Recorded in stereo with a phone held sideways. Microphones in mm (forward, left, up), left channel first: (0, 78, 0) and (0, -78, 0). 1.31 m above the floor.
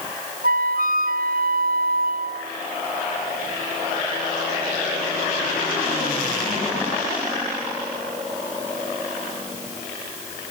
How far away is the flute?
About 0.7 m.